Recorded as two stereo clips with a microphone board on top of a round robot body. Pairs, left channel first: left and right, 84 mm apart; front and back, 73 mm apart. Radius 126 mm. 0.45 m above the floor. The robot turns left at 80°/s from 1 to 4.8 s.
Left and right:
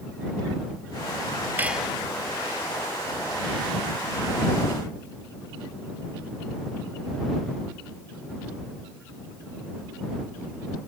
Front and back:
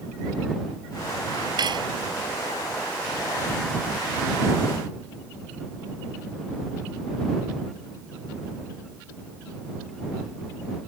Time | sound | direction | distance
1.6 | cutlery clinking | 160° right | ?